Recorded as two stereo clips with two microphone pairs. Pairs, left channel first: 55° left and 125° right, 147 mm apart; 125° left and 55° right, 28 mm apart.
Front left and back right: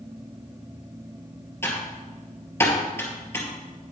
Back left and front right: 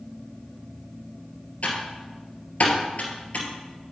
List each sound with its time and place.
1.6 s typing on a keyboard: 125° left, 2.5 m